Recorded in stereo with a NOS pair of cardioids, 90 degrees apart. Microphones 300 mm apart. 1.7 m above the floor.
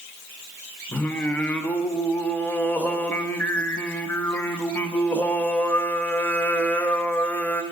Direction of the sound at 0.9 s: 5° left.